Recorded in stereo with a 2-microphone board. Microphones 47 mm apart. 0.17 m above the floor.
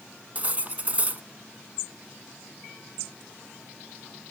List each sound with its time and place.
0.3 s cutlery clinking: 30° right (ahead or behind), 0.8 m